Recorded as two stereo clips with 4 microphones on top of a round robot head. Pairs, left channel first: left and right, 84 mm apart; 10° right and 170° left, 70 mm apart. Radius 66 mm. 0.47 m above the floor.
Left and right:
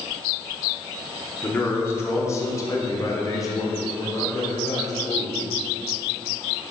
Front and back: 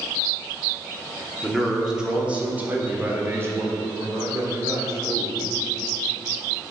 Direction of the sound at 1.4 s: 80° left.